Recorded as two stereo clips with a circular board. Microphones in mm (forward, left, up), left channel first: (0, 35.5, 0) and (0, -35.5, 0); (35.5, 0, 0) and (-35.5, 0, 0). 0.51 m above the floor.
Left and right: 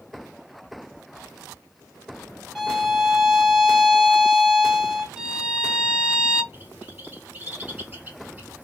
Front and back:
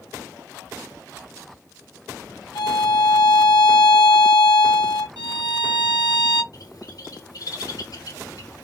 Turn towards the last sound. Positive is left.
turn(degrees=-25)